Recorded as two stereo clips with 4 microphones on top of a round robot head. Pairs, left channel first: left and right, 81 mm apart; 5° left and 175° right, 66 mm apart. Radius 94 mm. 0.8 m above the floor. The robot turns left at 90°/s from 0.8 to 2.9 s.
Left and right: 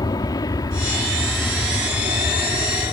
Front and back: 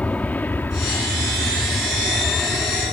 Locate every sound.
0.0 s an aircraft: 70° left; by 2.9 s 150° right